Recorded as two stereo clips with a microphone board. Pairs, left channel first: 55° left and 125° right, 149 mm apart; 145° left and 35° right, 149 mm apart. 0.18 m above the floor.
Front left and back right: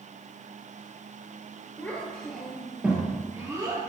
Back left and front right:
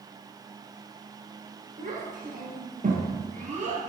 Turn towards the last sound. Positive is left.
turn(degrees=-65)